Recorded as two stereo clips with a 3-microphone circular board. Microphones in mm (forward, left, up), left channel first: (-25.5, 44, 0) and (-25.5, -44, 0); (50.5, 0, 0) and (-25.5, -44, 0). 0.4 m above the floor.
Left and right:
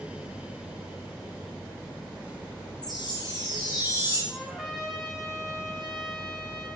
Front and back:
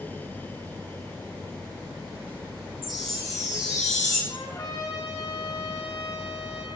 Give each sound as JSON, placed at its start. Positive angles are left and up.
{"t": 2.8, "sound": "a chime", "azimuth_deg": 125, "distance_m": 3.0}
{"t": 4.3, "sound": "a trumpet", "azimuth_deg": -5, "distance_m": 1.5}